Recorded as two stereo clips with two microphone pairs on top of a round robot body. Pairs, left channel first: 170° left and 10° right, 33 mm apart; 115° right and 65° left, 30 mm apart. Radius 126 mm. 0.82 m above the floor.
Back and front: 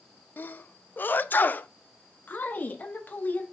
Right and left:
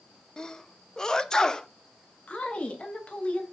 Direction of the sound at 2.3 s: 170° right.